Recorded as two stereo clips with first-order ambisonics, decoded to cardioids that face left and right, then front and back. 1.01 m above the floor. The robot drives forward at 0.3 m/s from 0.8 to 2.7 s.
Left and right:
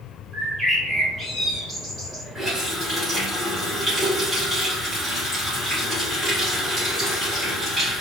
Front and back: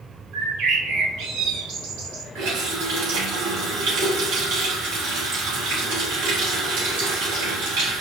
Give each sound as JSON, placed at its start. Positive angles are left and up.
{"t": 0.3, "sound": "a bird", "azimuth_deg": -170, "distance_m": 1.9}
{"t": 2.4, "sound": "a running tap", "azimuth_deg": -165, "distance_m": 1.9}